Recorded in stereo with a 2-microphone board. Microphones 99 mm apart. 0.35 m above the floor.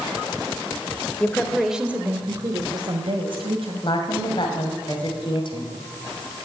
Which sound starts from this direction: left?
A woman speaking, at 3.8 s.